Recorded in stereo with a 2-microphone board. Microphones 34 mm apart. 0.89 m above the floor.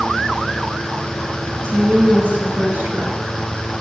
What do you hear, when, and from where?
1.6 s a woman speaking: 85° right, 4.5 m